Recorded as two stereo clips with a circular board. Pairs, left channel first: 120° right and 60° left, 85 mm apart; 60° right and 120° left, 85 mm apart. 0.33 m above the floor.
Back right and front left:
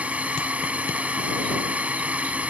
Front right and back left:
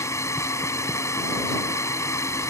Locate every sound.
0.0 s a drone: 10° right